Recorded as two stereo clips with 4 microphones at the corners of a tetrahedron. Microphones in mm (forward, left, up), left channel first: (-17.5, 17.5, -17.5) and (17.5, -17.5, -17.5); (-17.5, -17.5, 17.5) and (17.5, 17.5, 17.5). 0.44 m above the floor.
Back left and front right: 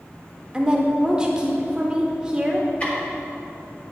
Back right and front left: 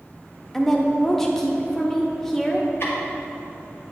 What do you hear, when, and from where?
0.5 s a woman speaking: 65° right, 0.7 m
2.8 s ticking: 165° right, 1.5 m